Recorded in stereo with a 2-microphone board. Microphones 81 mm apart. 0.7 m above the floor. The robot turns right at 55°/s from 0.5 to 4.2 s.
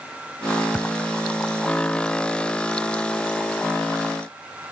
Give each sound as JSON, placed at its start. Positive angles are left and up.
{"t": 0.7, "sound": "a thud", "side_deg": -10}